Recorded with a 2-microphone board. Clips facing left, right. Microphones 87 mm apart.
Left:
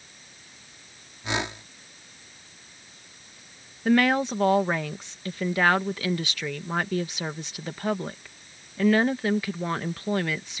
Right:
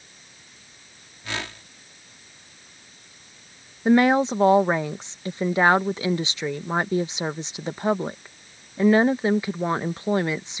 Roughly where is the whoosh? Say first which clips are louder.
Left 4 dB; left.